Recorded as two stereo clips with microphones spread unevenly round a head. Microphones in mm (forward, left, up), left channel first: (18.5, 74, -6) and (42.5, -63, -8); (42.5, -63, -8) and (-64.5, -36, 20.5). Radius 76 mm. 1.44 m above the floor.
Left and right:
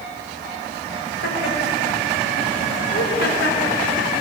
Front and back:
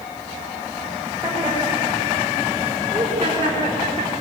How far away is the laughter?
About 6 m.